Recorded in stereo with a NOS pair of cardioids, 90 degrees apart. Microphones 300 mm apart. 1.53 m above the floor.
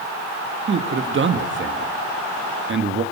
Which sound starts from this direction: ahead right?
A man speaking, at 0.7 s.